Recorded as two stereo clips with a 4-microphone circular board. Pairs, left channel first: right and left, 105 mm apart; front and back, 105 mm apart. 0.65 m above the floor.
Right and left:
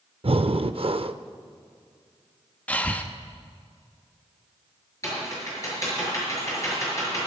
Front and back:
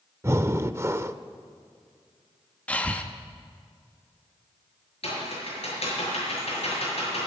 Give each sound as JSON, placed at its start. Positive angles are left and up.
{"t": 0.2, "sound": "breathing", "azimuth_deg": 115, "distance_m": 0.5}
{"t": 2.7, "sound": "breathing", "azimuth_deg": -45, "distance_m": 0.9}
{"t": 5.0, "sound": "typing on a keyboard", "azimuth_deg": -25, "distance_m": 6.5}